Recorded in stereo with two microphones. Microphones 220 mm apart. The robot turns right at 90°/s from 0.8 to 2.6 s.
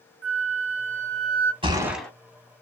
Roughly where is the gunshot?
Ahead right.